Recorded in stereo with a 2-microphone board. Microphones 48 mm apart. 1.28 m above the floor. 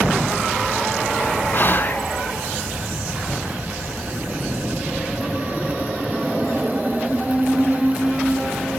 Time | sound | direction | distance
1.5 | whispering | 45° left (ahead or behind) | 0.8 m